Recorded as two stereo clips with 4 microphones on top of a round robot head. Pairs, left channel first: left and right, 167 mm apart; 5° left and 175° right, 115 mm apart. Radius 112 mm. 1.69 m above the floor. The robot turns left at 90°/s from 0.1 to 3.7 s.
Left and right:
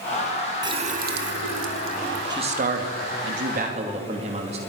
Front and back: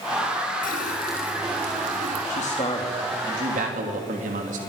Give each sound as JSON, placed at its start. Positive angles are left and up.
{"t": 0.6, "sound": "a running tap", "azimuth_deg": -25, "distance_m": 1.9}
{"t": 2.3, "sound": "a man speaking", "azimuth_deg": -25, "distance_m": 2.5}